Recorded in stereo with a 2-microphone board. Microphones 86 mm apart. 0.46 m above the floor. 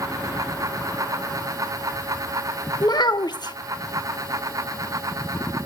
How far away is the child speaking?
About 0.6 m.